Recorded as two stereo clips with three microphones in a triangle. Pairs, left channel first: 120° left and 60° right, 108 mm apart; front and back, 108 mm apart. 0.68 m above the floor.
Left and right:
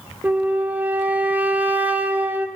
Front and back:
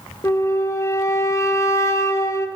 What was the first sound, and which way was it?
A flute, 5° right.